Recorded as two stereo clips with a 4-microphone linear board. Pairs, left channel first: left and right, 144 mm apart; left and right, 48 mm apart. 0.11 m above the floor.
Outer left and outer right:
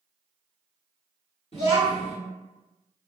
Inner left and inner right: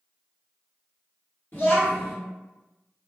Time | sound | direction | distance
1.5 | a child speaking | 45° left (ahead or behind) | 1.5 m